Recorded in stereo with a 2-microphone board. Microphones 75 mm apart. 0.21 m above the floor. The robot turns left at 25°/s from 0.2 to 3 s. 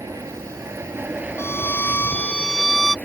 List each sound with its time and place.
0.0 s an aircraft: 130° right; by 3.0 s 160° left
1.4 s a violin: 40° left; by 3.0 s straight ahead